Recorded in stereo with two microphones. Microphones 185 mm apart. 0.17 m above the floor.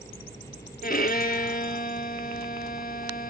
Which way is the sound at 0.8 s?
50° left (ahead or behind).